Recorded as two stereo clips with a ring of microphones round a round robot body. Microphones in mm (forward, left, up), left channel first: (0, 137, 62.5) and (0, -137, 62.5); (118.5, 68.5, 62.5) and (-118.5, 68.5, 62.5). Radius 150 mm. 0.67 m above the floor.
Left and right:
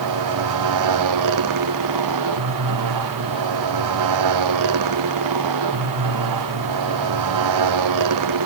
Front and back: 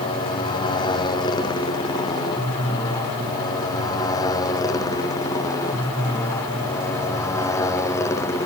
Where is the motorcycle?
75° right; by 8.5 s 80° right.